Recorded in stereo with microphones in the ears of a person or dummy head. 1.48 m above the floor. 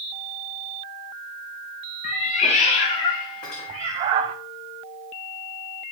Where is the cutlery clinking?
45° left (ahead or behind), 2.5 m.